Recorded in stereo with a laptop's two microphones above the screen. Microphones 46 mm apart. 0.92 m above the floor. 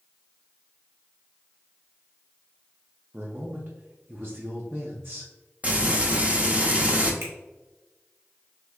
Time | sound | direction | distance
3.1 | a man speaking | 45° right (ahead or behind) | 0.6 m
5.6 | frying | 30° right (ahead or behind) | 1.2 m
7.2 | a finger snap | 60° right (ahead or behind) | 1.7 m